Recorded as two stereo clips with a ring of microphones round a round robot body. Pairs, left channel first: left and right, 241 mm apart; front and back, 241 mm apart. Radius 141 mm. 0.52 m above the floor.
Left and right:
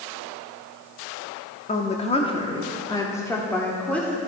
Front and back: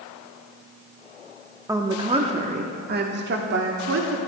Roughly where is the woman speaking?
Behind left.